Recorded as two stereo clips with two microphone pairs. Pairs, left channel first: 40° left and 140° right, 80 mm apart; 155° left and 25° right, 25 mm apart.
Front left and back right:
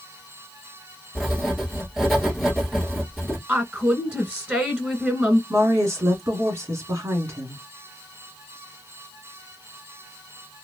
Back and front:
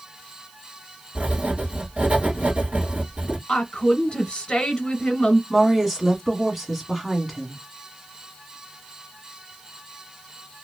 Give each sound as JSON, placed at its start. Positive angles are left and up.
{"t": 1.1, "sound": "writing", "azimuth_deg": -50, "distance_m": 1.2}
{"t": 3.5, "sound": "a woman speaking", "azimuth_deg": 165, "distance_m": 1.3}
{"t": 5.5, "sound": "a woman speaking", "azimuth_deg": -110, "distance_m": 1.4}